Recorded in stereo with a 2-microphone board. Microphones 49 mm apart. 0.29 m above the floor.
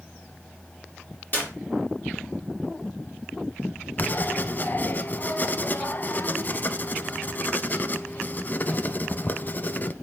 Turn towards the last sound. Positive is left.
turn(degrees=35)  # may be behind; listen again after turning